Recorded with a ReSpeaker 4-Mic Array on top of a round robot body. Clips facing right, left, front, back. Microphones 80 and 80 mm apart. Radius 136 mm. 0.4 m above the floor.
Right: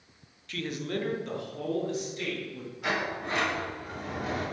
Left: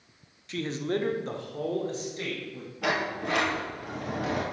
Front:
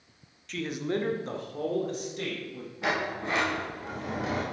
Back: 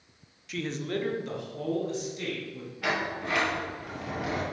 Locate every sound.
0.5 s a man speaking: 110° left, 0.9 m; by 2.7 s 35° left, 3 m
2.8 s a sliding door: 65° left, 1.9 m